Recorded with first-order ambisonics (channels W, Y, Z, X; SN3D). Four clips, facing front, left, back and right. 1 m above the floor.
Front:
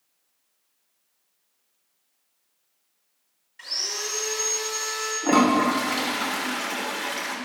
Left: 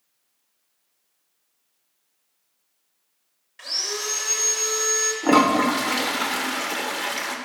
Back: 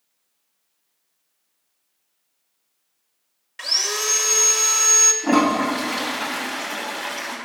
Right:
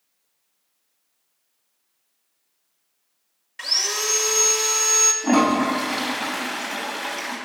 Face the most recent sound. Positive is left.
turn(degrees=80)